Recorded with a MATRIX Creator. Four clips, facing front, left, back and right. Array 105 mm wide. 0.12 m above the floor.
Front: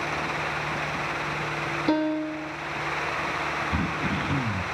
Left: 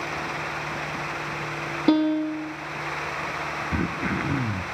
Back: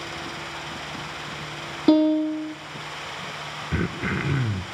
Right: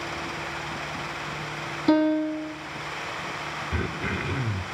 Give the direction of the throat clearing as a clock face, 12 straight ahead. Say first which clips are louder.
Left 4 dB, even; 6 o'clock.